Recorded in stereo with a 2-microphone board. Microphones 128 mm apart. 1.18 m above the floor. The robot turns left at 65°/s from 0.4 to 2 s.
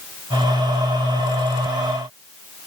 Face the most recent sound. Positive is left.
No sound to turn to.